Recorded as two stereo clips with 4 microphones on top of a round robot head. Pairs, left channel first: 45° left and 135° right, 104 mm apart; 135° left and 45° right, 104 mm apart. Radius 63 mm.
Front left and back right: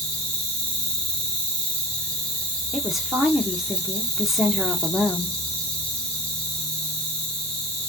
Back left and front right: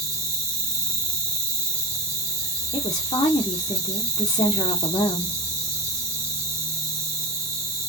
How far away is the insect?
About 2.5 m.